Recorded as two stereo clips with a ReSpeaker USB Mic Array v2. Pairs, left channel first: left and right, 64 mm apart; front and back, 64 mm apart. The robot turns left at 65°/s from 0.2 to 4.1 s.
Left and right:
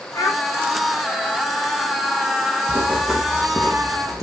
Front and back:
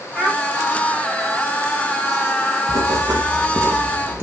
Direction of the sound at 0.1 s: 60° left.